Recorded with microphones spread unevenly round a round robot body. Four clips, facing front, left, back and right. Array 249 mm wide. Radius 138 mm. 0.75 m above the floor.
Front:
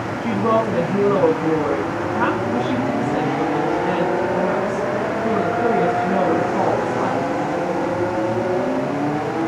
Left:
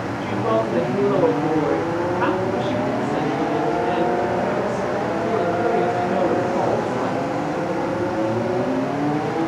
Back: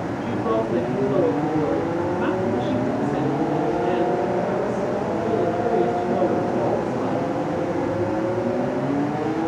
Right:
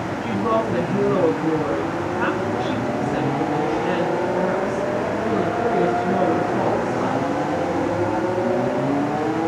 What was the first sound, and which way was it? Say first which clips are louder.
A woman speaking: even, front 5 dB; 15° left.